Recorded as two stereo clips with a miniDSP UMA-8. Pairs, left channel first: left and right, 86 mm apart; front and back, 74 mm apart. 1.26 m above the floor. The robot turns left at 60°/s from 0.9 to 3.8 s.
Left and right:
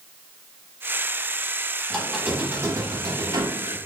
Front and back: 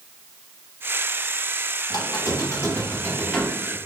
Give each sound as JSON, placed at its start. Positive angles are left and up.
{"t": 1.9, "sound": "a squeak", "azimuth_deg": 5, "distance_m": 0.8}